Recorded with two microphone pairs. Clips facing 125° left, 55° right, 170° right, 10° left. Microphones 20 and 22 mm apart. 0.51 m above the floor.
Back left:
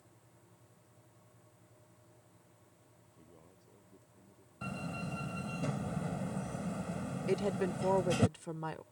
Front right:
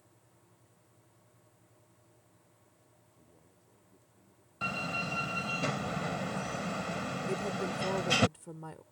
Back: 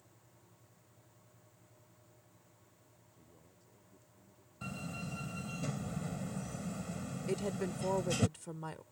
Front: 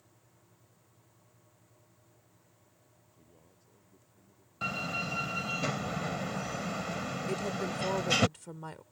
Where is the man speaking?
90° left; by 5.6 s 85° left.